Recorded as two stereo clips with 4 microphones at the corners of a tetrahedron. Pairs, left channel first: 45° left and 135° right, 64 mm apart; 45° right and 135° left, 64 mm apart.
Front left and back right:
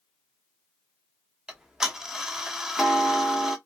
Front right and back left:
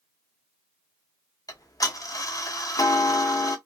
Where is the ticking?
55° right, 0.7 m.